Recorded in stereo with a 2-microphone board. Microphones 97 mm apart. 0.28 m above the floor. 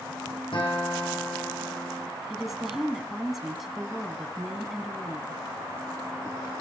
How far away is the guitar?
About 7 m.